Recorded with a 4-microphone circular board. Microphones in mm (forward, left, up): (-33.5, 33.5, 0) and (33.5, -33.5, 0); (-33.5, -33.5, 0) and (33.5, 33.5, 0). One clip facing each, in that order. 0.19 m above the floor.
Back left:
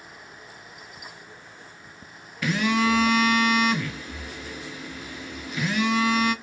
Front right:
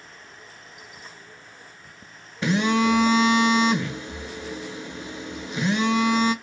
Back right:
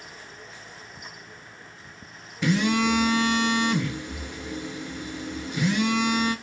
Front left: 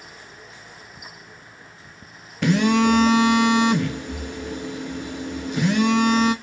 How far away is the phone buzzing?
About 0.6 m.